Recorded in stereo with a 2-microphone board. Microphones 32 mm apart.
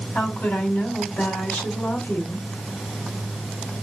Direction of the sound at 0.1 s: 65° left (ahead or behind).